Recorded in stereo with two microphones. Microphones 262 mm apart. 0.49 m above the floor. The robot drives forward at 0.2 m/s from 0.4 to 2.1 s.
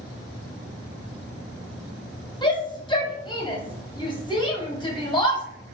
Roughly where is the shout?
Centre.